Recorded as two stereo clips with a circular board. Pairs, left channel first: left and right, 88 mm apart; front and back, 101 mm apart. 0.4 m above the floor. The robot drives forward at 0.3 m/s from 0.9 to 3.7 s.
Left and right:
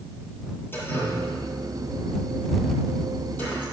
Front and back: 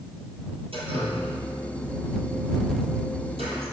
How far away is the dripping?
About 3 m.